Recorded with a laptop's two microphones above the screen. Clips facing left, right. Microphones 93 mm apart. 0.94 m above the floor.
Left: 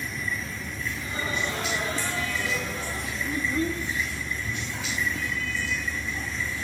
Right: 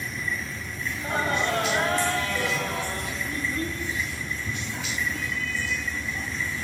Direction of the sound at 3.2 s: 20° left (ahead or behind).